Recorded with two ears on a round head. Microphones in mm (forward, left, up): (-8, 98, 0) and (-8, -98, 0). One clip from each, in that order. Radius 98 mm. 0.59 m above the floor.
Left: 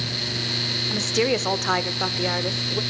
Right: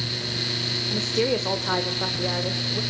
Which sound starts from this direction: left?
A woman speaking, at 0.9 s.